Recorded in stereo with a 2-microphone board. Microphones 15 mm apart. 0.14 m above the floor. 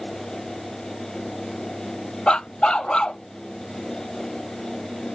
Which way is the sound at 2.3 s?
75° left (ahead or behind).